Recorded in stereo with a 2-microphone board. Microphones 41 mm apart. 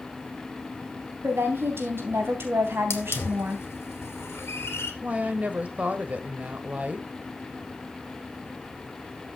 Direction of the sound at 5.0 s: 35° right (ahead or behind).